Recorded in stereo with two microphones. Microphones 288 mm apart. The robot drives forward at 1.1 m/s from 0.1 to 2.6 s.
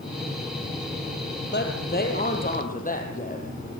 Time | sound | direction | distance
1.5 | a woman speaking | 35° left (ahead or behind) | 3.5 m